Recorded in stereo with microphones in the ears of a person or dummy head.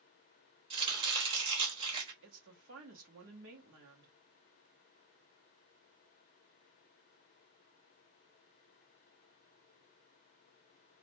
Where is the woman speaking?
65° right (ahead or behind), 1.0 m.